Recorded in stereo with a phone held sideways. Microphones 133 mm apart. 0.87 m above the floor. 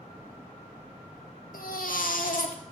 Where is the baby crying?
75° left (ahead or behind), 1.3 m.